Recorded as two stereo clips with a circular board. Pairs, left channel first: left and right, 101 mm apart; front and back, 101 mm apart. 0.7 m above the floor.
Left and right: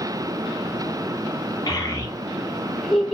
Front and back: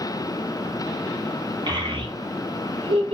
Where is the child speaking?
140° left, 1.2 m; by 3.1 s 175° right, 1.1 m.